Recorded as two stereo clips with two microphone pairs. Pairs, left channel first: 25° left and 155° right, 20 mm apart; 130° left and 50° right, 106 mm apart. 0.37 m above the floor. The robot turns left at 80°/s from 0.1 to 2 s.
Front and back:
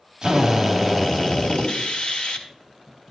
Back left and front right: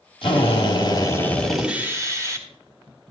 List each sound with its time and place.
0.2 s a drill: 150° left, 2.5 m; by 2.5 s 5° left, 2.5 m